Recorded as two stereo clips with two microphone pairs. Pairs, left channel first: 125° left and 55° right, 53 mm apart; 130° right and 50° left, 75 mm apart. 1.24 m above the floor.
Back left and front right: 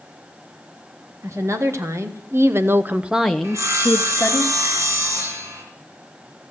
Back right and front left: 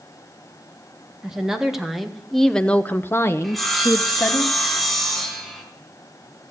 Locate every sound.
1.2 s a woman speaking: 30° right, 1.8 m; by 4.4 s 170° left, 1.3 m
3.4 s sawing: 40° right, 2.5 m